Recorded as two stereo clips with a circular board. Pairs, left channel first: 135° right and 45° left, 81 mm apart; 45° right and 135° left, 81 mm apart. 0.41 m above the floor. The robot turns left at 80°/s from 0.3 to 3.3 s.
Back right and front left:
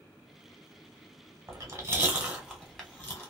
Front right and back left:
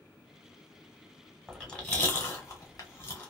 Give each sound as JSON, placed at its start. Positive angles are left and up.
{"t": 1.5, "sound": "chewing", "azimuth_deg": 45, "distance_m": 1.3}